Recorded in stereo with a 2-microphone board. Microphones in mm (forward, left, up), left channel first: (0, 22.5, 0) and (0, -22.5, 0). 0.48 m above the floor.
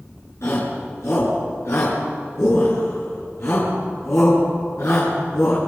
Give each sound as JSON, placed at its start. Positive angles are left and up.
{"t": 0.4, "sound": "a shout", "side_deg": 75, "distance_m": 7.0}